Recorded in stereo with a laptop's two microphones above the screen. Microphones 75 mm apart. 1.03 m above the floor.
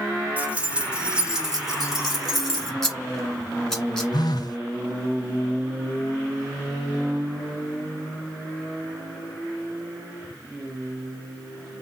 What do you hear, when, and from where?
0.4 s keys jangling: 20° right (ahead or behind), 1.7 m; by 2.7 s 5° left (ahead or behind), 2.5 m
2.8 s scissors: 5° left (ahead or behind), 1.6 m
4.1 s a phone buzzing: 60° left (ahead or behind), 1.2 m